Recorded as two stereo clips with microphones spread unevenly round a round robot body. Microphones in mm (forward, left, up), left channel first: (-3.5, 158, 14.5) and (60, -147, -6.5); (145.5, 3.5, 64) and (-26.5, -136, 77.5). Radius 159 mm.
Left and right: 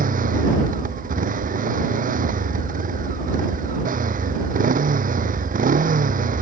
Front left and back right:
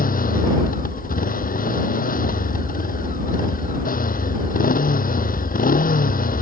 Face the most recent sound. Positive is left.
turn(degrees=-15)